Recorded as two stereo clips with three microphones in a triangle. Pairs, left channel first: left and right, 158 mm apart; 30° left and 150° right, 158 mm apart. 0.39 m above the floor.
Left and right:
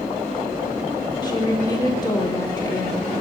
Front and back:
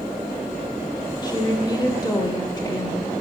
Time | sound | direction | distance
1.2 | a woman speaking | 60° left | 0.8 m